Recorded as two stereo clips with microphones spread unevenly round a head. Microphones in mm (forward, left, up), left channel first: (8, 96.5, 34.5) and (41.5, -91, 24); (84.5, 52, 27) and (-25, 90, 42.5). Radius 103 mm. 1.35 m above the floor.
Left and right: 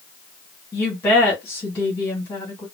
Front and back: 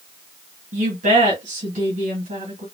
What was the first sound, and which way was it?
A woman speaking, straight behind.